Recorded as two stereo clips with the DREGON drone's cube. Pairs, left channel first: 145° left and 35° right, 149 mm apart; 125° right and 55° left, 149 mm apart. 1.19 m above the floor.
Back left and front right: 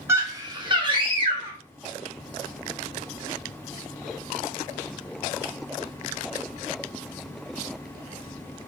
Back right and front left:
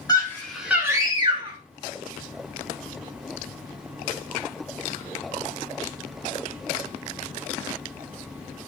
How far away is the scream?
About 0.7 m.